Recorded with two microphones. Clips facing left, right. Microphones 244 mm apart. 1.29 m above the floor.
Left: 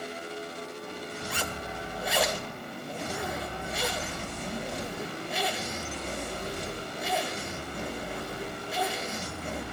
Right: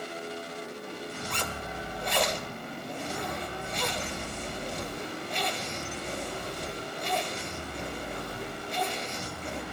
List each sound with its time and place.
1.3 s a zipper: 5° left (ahead or behind), 1.9 m